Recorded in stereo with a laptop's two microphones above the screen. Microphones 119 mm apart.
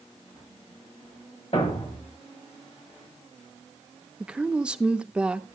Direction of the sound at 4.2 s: 10° right (ahead or behind).